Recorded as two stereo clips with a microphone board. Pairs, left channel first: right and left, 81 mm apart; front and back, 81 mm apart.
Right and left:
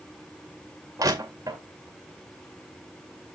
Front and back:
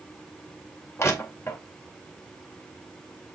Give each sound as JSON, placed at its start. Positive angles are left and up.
{"t": 1.0, "sound": "crushing", "azimuth_deg": 55, "distance_m": 2.5}